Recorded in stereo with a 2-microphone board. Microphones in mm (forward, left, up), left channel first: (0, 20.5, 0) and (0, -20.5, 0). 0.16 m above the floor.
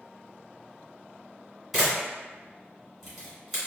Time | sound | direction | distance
1.7 | a camera shutter | centre (ahead or behind) | 1.7 m